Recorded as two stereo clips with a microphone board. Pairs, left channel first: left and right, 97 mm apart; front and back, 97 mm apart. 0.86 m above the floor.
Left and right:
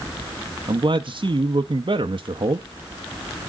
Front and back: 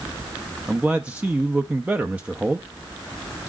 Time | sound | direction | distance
0.7 | a man speaking | 105° right | 0.6 m